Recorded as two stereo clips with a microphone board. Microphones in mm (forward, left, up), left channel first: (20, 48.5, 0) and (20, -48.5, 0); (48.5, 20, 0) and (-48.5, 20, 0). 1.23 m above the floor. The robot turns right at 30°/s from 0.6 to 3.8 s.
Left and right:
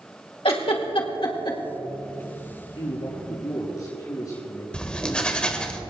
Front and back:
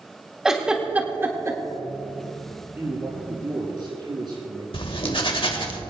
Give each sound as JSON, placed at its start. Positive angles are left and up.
{"t": 0.5, "sound": "a giggle", "azimuth_deg": 95, "distance_m": 1.8}
{"t": 2.8, "sound": "a man speaking", "azimuth_deg": 110, "distance_m": 6.5}
{"t": 4.7, "sound": "writing", "azimuth_deg": 10, "distance_m": 1.5}